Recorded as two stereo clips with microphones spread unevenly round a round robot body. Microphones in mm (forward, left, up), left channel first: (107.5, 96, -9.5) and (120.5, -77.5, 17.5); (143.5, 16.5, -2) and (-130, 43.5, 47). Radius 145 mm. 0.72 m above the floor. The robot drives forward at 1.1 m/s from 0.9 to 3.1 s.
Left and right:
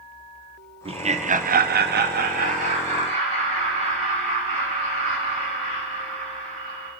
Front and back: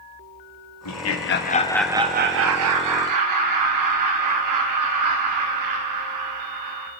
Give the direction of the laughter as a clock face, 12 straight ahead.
1 o'clock.